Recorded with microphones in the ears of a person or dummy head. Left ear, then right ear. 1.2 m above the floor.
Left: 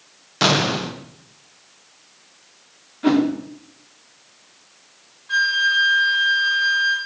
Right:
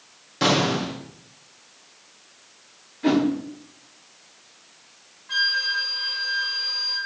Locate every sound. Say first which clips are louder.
0.4 s an explosion: left 3 dB; 30° left (ahead or behind), 0.6 m
3.0 s a whoosh: left 3 dB; 25° left (ahead or behind), 1.4 m
5.3 s a flute: left 4 dB; 25° left (ahead or behind), 2.5 m